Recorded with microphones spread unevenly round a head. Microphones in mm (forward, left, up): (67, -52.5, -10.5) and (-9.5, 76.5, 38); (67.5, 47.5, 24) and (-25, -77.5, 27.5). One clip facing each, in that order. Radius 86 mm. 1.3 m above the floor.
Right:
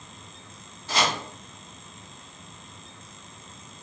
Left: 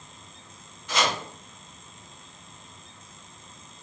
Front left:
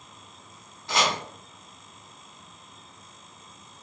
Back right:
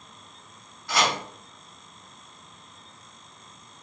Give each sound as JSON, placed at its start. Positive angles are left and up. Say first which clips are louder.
{"t": 0.9, "sound": "chopping", "louder": "even, back right 1 dB", "azimuth_deg": -10, "distance_m": 1.5}